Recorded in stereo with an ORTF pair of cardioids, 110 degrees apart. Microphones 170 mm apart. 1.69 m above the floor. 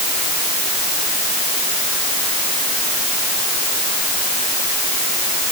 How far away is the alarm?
I don't hear an alarm.